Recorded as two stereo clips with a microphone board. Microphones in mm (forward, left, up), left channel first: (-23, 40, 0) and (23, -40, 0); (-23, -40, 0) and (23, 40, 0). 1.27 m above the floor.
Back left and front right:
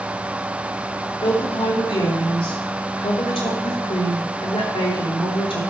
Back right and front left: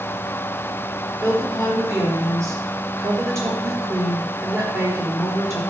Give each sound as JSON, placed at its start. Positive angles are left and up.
{"t": 1.2, "sound": "a woman speaking", "azimuth_deg": 120, "distance_m": 3.5}